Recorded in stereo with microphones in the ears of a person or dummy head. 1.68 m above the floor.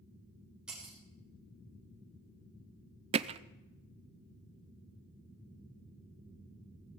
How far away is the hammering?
About 0.6 m.